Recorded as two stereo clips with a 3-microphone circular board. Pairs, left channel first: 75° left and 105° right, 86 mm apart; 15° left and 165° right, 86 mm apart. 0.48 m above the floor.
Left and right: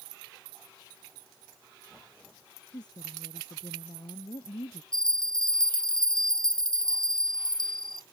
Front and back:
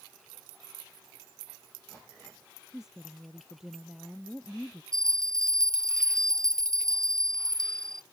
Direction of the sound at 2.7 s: 110° left.